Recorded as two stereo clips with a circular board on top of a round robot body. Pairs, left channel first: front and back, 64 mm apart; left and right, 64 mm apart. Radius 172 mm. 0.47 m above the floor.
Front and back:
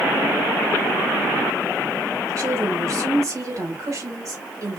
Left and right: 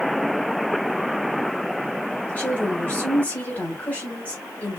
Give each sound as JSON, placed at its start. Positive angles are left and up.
{"t": 2.3, "sound": "a woman speaking", "azimuth_deg": 155, "distance_m": 3.5}